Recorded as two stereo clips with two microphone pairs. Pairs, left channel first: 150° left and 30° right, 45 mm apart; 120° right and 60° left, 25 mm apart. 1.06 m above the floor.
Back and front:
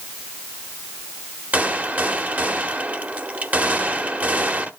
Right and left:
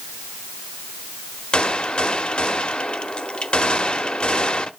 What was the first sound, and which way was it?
A gunshot, 80° right.